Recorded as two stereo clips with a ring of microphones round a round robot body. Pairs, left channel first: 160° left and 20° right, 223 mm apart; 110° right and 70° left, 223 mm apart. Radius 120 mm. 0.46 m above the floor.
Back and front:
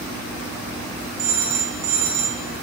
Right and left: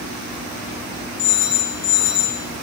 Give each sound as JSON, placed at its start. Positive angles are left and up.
{"t": 1.2, "sound": "a phone ringing", "azimuth_deg": -75, "distance_m": 2.0}